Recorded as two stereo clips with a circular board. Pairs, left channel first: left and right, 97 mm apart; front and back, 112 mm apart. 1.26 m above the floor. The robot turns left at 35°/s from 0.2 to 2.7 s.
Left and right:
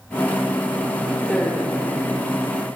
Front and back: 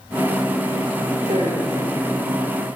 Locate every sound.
1.2 s a woman speaking: 175° left, 4 m; by 1.9 s 150° left, 4 m